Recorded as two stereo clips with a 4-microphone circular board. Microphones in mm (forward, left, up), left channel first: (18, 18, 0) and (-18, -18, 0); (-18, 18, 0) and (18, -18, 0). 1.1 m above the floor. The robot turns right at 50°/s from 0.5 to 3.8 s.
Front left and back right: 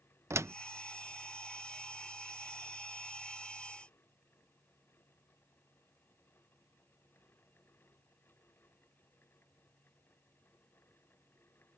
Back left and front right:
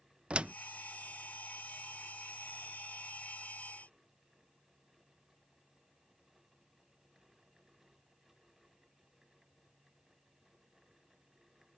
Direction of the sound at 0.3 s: 110° right.